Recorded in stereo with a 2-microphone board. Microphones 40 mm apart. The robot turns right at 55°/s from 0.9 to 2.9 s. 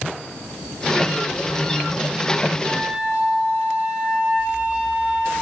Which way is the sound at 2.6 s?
50° right (ahead or behind).